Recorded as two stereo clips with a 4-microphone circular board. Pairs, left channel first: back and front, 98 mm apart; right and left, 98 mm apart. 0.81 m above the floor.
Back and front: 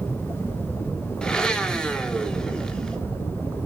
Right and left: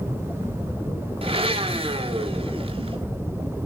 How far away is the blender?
About 1.9 m.